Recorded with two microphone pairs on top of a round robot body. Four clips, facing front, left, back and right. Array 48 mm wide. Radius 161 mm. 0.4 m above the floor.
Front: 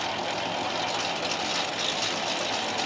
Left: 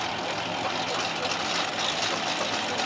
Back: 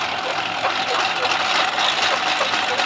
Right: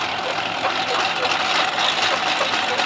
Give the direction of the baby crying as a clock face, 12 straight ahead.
No baby crying in this recording.